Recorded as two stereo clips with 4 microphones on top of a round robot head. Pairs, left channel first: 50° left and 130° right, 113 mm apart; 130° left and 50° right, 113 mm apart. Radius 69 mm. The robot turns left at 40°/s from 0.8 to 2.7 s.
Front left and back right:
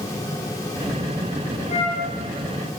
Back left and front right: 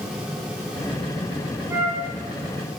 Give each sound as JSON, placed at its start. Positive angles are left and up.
{"t": 1.7, "sound": "a flute", "azimuth_deg": 20, "distance_m": 6.0}